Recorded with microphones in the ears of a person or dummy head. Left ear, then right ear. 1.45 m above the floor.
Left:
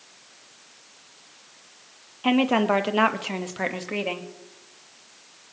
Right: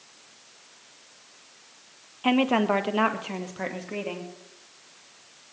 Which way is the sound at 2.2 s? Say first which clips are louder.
Left 1 dB; 10° right (ahead or behind).